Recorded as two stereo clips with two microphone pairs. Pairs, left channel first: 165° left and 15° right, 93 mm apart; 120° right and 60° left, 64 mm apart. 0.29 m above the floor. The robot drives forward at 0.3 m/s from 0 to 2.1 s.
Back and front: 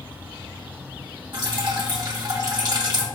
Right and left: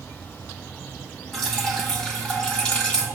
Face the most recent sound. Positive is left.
turn(degrees=-45)